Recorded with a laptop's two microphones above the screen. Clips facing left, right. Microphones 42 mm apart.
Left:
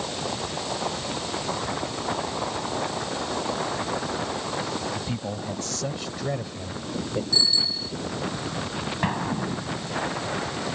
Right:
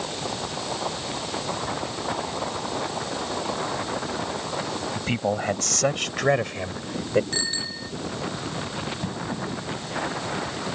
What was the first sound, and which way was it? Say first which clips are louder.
A man speaking: right 6 dB; 75° right (ahead or behind).